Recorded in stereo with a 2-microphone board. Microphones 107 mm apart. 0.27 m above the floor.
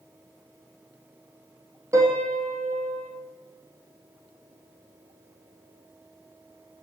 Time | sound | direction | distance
1.9 | a piano | 30° right (ahead or behind) | 3 m